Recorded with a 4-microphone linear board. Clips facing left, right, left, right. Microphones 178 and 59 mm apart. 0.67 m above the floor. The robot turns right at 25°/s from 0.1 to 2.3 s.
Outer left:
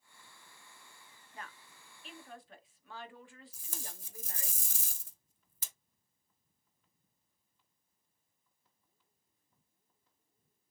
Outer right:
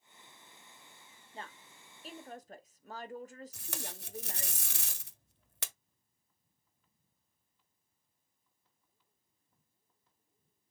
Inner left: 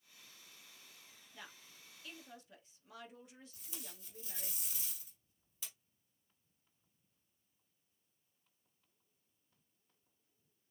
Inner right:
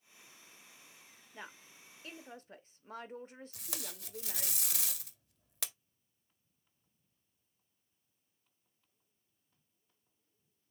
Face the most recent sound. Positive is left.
turn(degrees=-65)  # may be behind; listen again after turning